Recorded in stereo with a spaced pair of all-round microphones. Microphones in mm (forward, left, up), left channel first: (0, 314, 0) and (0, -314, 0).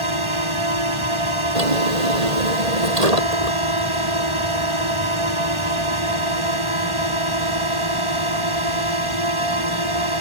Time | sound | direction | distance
0.0 | a drone | 50° right (ahead or behind) | ?
1.6 | a drawer | 75° right (ahead or behind) | ?